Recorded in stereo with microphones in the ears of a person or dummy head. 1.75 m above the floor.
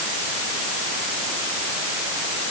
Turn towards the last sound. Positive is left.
No sound to turn to.